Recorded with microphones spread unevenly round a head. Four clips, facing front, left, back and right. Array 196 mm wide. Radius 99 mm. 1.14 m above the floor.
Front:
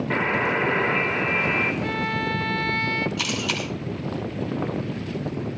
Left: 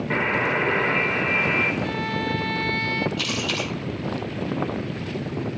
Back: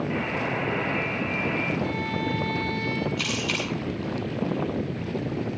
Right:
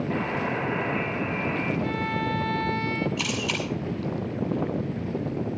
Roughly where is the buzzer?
Ahead left.